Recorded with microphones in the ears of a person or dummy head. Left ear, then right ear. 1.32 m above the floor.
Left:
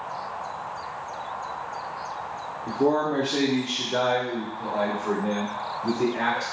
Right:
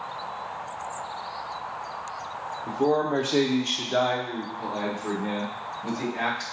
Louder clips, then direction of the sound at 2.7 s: Left 1 dB; 5° right (ahead or behind).